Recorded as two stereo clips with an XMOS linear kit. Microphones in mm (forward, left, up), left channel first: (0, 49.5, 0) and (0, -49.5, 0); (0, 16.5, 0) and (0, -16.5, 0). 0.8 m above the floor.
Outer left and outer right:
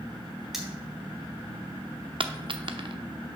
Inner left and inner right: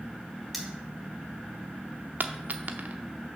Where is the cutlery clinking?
5° right (ahead or behind), 2 m.